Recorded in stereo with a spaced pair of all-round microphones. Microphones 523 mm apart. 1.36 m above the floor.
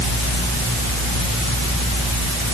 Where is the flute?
No flute in this recording.